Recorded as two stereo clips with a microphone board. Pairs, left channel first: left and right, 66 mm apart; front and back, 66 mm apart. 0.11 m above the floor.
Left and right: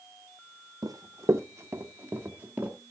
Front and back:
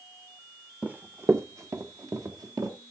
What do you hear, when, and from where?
0.8 s running footsteps: 105° right, 0.9 m; by 2.8 s 160° right, 3 m